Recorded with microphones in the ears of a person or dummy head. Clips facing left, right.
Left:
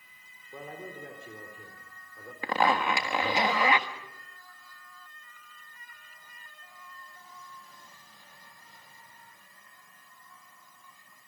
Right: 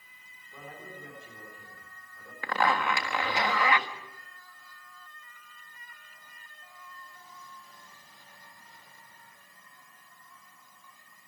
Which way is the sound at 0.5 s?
50° left (ahead or behind).